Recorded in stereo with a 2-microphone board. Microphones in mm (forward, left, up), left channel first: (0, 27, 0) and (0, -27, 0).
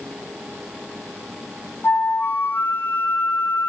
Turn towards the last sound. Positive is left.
turn(degrees=40)  # may be behind; listen again after turning